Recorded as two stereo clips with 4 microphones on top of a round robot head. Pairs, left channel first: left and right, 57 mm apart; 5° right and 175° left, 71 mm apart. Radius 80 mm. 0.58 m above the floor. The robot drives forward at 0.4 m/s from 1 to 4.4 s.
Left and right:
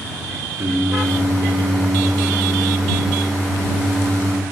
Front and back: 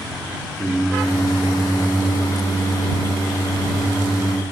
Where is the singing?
80° right, 1.7 m; by 4.4 s 130° right, 2 m.